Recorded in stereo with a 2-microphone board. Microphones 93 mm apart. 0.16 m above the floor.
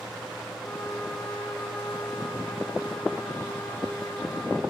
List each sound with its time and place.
0.6 s a trumpet: 30° left (ahead or behind), 7.5 m